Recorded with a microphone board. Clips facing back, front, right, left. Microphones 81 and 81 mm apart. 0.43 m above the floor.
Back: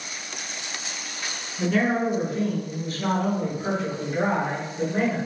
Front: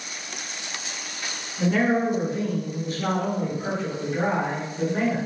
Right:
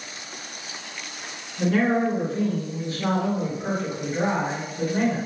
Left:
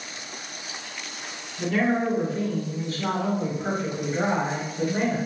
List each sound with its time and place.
1.6 s a man speaking: 55° right, 1.9 m; by 5.2 s 115° left, 1.5 m